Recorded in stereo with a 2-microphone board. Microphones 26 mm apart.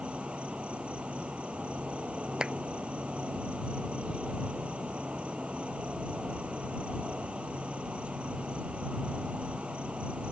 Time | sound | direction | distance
0.0 | an insect | 50° right (ahead or behind) | ?
2.4 | a clap | 30° right (ahead or behind) | ?